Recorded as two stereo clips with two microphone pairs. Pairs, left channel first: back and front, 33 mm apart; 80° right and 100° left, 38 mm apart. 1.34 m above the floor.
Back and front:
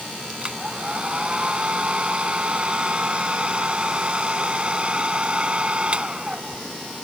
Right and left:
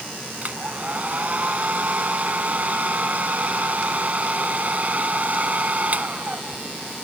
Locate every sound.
0.4 s a hair dryer: 50° left